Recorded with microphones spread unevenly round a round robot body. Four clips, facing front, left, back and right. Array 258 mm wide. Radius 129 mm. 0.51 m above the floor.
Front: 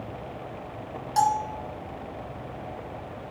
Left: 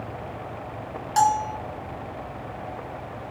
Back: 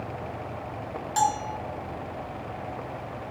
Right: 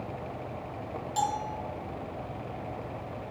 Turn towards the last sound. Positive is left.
turn(degrees=100)